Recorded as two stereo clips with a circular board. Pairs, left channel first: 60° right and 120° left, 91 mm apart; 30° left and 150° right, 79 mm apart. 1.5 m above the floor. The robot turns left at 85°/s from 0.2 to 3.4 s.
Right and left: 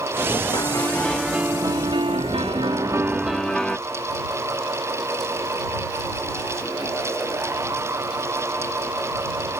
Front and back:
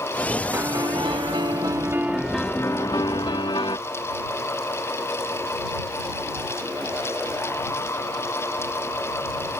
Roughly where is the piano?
Right.